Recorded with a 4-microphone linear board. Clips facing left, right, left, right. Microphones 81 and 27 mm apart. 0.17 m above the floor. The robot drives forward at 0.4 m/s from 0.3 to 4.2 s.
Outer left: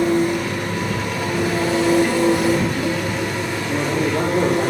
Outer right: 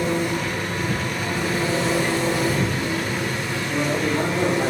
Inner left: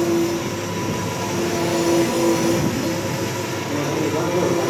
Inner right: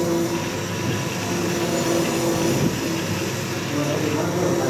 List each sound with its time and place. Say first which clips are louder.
0.0 s an engine running: outer left 5 dB, inner left 2 dB; 55° left (ahead or behind), 2 m; by 4.7 s 65° left (ahead or behind), 2.0 m
3.7 s a man speaking: outer left 2 dB, inner left 1 dB; 50° left (ahead or behind), 4 m; by 4.7 s 45° left (ahead or behind), 4 m